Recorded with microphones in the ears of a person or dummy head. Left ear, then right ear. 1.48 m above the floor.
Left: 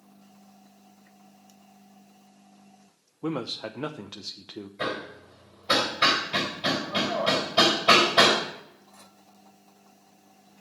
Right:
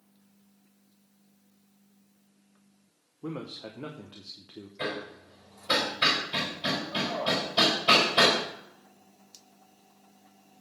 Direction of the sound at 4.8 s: 5° left (ahead or behind).